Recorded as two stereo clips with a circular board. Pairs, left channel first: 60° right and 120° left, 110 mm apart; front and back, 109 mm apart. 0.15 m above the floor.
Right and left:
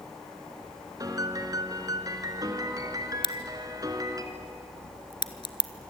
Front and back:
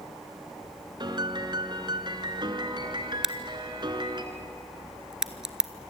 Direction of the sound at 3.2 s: 95° right.